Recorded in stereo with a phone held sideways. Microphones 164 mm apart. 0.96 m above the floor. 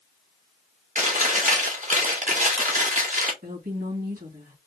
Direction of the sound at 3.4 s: 70° right (ahead or behind).